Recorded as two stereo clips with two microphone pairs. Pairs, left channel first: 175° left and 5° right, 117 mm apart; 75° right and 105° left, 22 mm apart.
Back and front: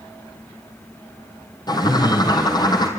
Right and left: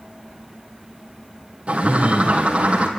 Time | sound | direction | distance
1.7 | a bird | 125° left | 3 m